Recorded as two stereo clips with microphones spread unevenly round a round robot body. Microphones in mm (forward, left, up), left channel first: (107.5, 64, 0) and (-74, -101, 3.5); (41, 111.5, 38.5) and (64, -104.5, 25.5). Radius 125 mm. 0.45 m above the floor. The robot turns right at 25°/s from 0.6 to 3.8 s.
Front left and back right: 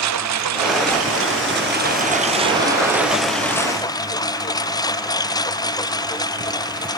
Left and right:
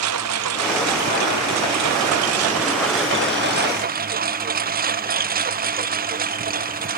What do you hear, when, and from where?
0.0 s a lawn mower: 115° right; by 7.0 s 35° right